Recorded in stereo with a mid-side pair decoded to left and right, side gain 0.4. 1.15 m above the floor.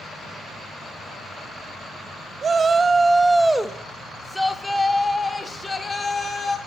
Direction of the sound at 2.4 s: 50° right.